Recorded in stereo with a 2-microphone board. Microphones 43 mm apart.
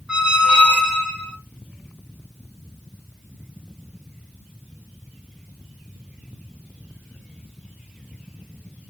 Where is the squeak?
20° right (ahead or behind), 0.8 m.